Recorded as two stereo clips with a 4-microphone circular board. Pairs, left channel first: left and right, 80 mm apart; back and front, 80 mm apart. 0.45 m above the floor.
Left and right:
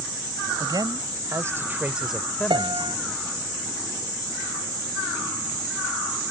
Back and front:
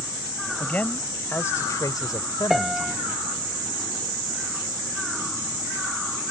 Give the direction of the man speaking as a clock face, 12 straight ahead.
4 o'clock.